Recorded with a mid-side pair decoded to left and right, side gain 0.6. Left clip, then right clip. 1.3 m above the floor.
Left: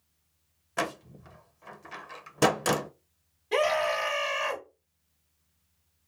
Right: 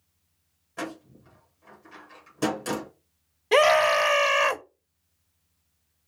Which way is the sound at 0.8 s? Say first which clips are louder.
Left 4 dB; 50° left.